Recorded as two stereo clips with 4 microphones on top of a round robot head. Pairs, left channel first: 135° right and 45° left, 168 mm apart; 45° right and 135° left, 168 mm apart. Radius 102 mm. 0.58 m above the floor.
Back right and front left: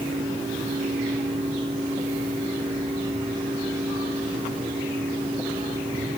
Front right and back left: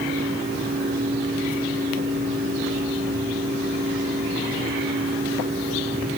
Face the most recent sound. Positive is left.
No sound to turn to.